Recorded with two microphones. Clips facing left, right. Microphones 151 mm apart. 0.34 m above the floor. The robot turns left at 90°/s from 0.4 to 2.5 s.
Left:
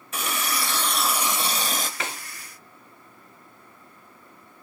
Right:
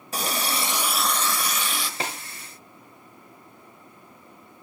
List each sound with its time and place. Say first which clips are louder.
0.1 s a running tap: right 2 dB; 125° right, 0.8 m; by 1.9 s 100° left, 0.8 m
2.0 s a snare drum: right 2 dB; 30° right (ahead or behind), 2.5 m; by 2.2 s 15° right (ahead or behind), 2.5 m